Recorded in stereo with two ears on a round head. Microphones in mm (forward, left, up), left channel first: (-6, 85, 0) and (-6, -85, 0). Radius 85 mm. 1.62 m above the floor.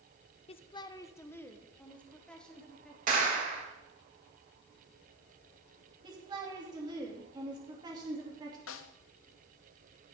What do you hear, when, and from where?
0.5 s a woman speaking: 30° left (ahead or behind), 0.6 m; by 3.0 s 5° left (ahead or behind), 2.5 m
3.1 s a clap: 45° right (ahead or behind), 2.5 m
6.0 s a woman speaking: 20° right (ahead or behind), 3 m
8.7 s a snare drum: 75° left (ahead or behind), 0.7 m